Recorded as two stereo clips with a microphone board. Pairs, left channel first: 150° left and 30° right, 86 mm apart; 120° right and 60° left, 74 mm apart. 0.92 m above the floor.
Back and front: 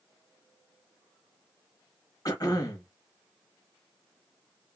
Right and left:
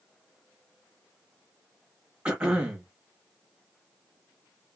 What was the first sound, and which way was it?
Throat clearing, 135° left.